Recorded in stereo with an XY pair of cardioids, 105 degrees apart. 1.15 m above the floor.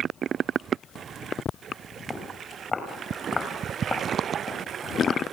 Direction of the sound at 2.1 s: 35° left.